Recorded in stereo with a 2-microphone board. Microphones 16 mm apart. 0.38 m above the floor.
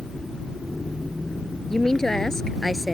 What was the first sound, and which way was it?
A woman speaking, 30° left (ahead or behind).